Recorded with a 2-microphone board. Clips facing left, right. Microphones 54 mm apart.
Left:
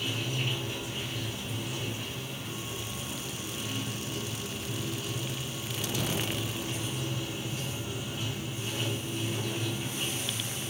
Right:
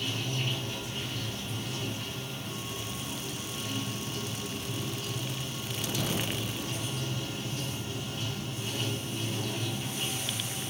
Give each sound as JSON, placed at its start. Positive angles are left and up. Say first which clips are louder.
{"t": 0.0, "sound": "running water", "louder": "even", "side_deg": 10, "distance_m": 0.7}